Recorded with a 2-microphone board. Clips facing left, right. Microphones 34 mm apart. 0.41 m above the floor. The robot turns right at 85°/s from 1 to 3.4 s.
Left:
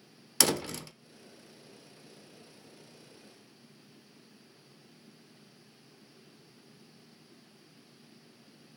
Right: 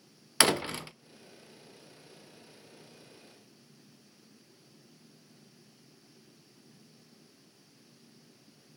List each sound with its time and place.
0.4 s a door slam: 25° right (ahead or behind), 0.5 m